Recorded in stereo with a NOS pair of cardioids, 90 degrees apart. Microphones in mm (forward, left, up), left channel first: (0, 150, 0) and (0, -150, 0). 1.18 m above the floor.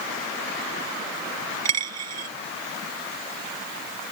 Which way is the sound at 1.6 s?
60° right.